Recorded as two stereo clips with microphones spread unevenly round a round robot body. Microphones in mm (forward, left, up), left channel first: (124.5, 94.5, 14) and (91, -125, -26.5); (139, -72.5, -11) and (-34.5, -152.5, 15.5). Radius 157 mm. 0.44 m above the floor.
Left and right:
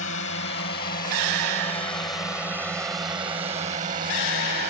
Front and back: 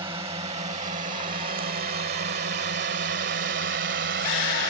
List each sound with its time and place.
0.0 s a drone: 130° left; by 4.7 s 150° right